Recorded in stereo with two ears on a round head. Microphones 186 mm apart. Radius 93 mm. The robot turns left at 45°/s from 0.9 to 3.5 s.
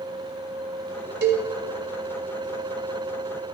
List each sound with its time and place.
1.2 s a cowbell: 55° right (ahead or behind), 2.0 m; by 1.5 s 45° right (ahead or behind), 2.0 m